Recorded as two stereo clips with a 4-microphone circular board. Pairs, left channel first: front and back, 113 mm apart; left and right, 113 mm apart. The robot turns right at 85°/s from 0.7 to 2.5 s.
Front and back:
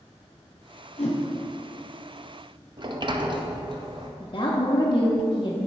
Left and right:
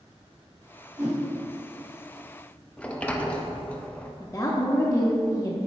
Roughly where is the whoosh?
Ahead.